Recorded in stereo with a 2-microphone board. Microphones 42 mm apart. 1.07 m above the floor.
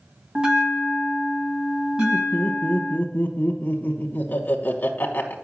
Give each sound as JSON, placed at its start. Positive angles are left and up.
{"t": 0.3, "sound": "a bell", "side_deg": -20, "distance_m": 1.3}
{"t": 2.0, "sound": "laughter", "side_deg": 45, "distance_m": 0.9}